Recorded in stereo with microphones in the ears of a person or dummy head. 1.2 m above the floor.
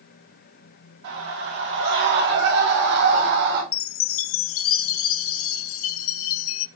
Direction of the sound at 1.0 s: 60° right (ahead or behind).